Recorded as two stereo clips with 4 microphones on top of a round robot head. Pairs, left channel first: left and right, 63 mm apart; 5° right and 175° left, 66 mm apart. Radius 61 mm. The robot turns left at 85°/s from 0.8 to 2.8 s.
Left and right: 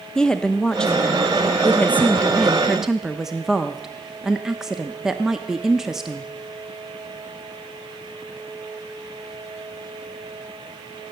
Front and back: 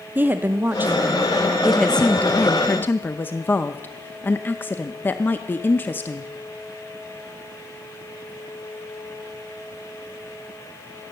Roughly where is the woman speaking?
Behind left.